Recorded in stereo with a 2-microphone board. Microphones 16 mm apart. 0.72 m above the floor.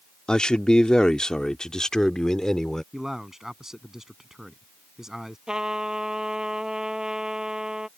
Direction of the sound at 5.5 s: 50° right (ahead or behind).